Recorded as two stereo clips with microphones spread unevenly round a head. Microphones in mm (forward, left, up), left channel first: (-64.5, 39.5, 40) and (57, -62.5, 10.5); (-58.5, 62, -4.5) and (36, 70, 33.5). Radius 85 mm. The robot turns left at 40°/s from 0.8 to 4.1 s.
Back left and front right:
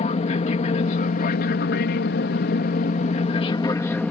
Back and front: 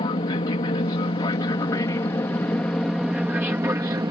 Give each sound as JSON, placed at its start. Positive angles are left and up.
{"t": 0.0, "sound": "an aircraft", "azimuth_deg": -175}